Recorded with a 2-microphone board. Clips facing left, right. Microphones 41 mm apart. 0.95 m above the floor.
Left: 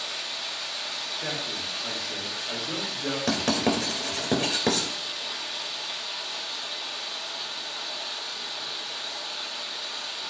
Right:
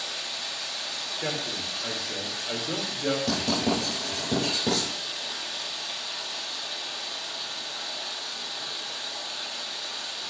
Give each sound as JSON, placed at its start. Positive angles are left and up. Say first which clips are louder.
{"t": 0.0, "sound": "running water", "louder": "left 1 dB", "side_deg": 5, "distance_m": 1.5}
{"t": 1.2, "sound": "a man speaking", "louder": "right 2 dB", "side_deg": -75, "distance_m": 3.5}
{"t": 3.3, "sound": "writing", "louder": "left 1 dB", "side_deg": 80, "distance_m": 2.5}